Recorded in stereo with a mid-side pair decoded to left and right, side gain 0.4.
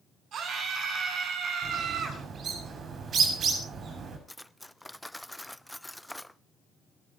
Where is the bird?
60° right, 7 m.